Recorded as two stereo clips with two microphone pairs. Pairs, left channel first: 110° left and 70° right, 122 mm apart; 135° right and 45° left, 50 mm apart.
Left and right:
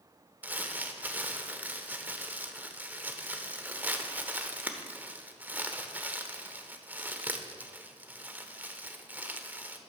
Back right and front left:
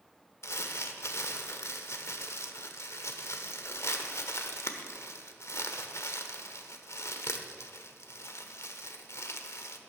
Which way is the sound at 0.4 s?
145° right.